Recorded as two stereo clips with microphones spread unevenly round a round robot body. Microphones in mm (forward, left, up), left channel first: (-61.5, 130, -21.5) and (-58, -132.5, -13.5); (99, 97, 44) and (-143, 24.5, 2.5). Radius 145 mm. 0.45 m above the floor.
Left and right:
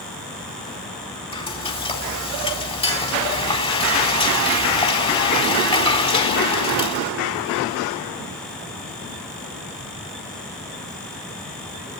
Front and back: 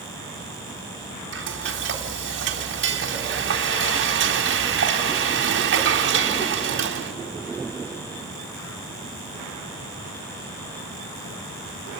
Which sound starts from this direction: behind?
Frying, at 1.3 s.